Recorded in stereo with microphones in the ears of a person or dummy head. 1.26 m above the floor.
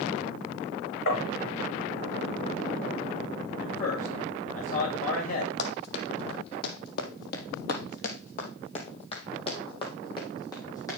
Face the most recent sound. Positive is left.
turn(degrees=15)  # may be behind; listen again after turning